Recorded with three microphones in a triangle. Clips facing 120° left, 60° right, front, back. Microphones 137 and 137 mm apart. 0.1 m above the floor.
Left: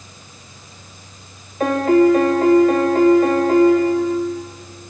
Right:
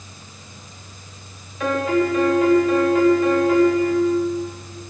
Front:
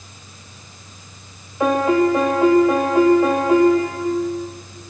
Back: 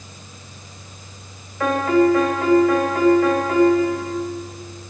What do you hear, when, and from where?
1.6 s a piano: 70° left, 3 m